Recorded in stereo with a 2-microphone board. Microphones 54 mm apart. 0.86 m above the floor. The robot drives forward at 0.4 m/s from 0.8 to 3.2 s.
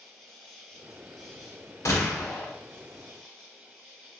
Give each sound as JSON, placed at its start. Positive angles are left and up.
{"t": 0.0, "sound": "an insect", "side_deg": 5, "distance_m": 1.5}
{"t": 1.9, "sound": "a gunshot", "side_deg": 90, "distance_m": 1.5}